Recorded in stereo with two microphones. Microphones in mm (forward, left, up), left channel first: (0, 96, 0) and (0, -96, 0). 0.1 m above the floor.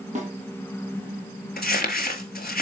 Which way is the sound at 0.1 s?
40° right (ahead or behind).